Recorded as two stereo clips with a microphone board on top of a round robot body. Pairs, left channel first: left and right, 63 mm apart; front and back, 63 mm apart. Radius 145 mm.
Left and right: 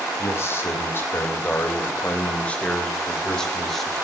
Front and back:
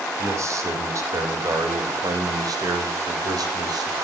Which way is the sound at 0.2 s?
140° left.